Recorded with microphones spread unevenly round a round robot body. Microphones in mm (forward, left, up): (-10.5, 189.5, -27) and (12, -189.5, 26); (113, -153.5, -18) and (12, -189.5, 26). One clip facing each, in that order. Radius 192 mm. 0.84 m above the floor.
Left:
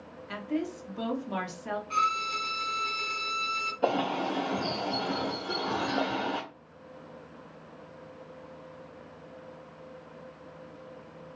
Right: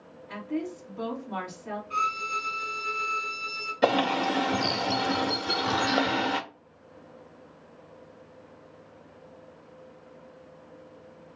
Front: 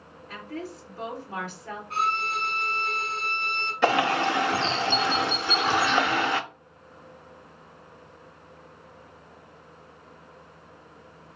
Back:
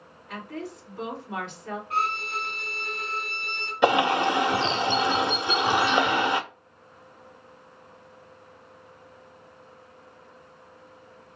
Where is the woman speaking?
90° left, 1.9 m.